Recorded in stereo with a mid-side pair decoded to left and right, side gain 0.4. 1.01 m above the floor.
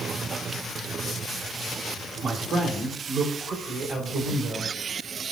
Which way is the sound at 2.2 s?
60° right.